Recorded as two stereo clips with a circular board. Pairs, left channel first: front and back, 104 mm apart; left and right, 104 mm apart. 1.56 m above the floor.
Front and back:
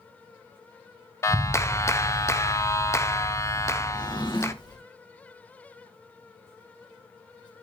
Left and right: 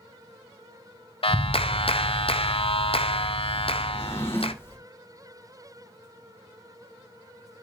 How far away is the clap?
About 0.6 m.